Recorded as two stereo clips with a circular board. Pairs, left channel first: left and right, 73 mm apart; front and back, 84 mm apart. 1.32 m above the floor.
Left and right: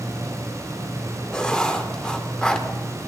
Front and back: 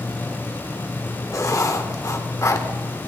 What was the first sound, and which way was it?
Writing, 15° left.